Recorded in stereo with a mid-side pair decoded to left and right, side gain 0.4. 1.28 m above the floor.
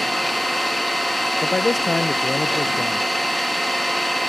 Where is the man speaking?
30° left, 0.7 m.